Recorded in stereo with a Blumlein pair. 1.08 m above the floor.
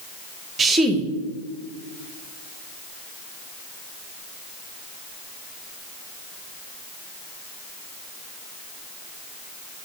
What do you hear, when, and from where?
0.6 s a woman speaking: 20° right, 0.8 m